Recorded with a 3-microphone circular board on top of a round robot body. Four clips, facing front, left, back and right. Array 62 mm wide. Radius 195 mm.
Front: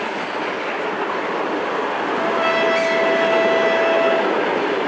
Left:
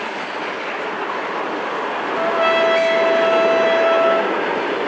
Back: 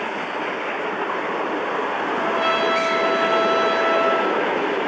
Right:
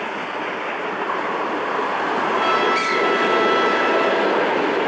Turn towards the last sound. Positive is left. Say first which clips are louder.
# left 4 dB, front 2 dB
turn(degrees=100)